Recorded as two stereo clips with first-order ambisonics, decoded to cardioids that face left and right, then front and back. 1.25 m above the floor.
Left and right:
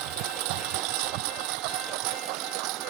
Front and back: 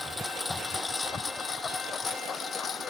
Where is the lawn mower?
85° right; by 2.9 s 65° right.